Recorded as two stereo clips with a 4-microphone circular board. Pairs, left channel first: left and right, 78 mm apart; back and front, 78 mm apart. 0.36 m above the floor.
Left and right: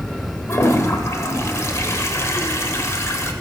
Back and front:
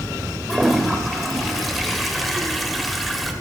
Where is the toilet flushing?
95° left, 0.9 m.